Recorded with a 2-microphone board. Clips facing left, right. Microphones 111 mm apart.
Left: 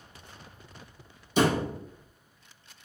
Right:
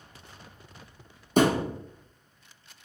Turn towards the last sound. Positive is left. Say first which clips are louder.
# right 2 dB
turn(degrees=-50)  # may be behind; listen again after turning